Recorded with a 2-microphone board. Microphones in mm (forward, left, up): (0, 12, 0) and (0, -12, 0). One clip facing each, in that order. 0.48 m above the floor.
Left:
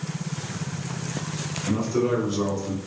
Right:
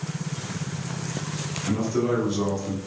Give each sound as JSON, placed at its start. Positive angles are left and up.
{"t": 1.7, "sound": "a man speaking", "side_deg": 20, "distance_m": 0.8}